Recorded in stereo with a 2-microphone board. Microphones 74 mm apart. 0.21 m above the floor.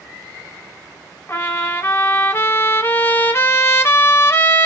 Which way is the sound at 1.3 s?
35° left (ahead or behind).